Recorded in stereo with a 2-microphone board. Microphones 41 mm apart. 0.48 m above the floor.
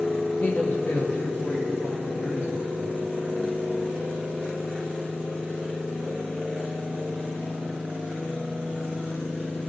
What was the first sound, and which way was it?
A man speaking, 45° left (ahead or behind).